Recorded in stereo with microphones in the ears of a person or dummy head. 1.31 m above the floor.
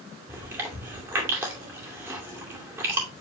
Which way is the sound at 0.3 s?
15° right (ahead or behind).